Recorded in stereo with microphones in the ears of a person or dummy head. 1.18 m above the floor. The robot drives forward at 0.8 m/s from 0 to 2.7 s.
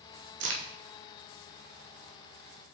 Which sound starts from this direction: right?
A crack, at 0.4 s.